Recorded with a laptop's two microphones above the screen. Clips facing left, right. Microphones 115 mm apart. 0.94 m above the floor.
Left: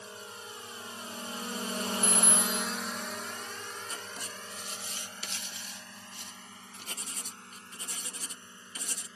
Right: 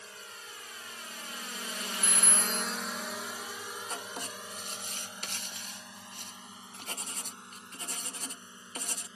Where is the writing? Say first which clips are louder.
Right 3 dB; 50° right (ahead or behind).